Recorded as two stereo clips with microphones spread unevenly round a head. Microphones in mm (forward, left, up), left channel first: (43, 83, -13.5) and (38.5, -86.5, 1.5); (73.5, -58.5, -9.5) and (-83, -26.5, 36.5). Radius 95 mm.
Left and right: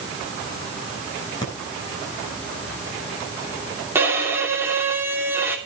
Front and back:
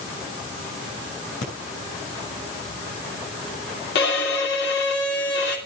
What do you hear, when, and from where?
1.4 s breathing: 20° left, 7.5 m
4.0 s a violin: 15° right, 3 m